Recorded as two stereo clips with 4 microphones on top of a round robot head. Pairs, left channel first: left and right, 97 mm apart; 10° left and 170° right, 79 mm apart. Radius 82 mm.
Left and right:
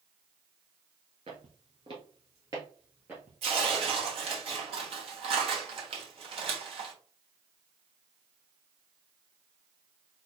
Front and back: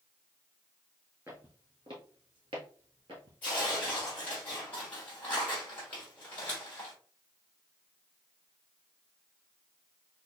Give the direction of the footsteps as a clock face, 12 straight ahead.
3 o'clock.